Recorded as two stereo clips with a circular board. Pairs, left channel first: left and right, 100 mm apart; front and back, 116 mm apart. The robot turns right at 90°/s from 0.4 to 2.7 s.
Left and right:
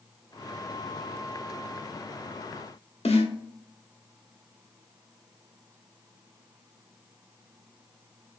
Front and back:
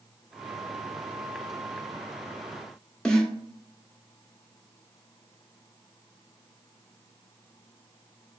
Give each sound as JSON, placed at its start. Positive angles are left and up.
{"t": 3.0, "sound": "a snare drum", "azimuth_deg": 85, "distance_m": 0.9}